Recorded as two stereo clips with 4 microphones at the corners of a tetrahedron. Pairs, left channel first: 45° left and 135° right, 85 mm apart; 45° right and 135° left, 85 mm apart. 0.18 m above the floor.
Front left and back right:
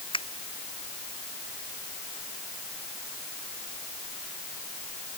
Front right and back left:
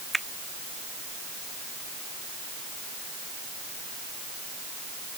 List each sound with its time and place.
0.1 s a finger snap: 45° left